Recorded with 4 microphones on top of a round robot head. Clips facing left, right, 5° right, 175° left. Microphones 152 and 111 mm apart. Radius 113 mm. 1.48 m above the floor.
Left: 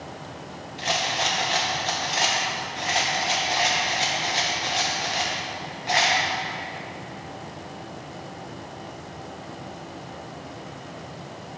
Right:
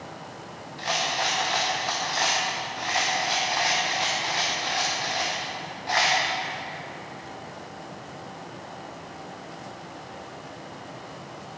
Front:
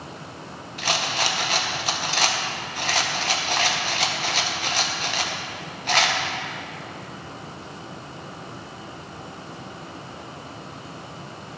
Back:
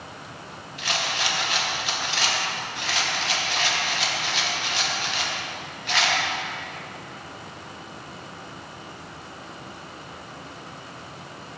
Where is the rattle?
20° left, 0.6 m.